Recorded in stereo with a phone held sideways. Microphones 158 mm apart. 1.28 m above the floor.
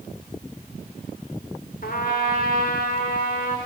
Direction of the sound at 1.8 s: 65° left (ahead or behind).